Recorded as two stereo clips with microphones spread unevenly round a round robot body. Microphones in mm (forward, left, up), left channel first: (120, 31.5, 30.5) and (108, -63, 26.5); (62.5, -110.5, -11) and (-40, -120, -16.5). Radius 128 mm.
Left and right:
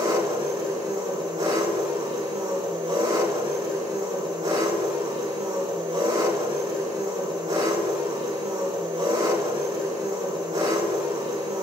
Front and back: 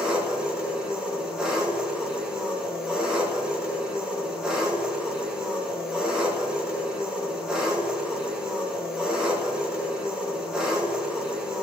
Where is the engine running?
95° right, 2.5 m.